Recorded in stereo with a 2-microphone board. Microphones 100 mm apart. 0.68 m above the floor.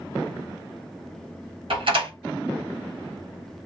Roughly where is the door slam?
Right.